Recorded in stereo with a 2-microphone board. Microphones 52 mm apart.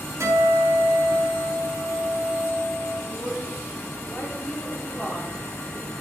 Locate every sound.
0.2 s a guitar: 70° right (ahead or behind), 3.5 m
3.1 s a woman speaking: 20° left (ahead or behind), 3 m